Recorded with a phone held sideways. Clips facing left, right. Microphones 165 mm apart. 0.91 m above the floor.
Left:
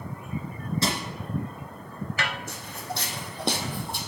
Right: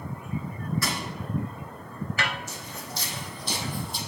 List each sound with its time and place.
0.8 s crushing: 25° left (ahead or behind), 1.9 m
2.5 s footsteps: 60° left (ahead or behind), 3 m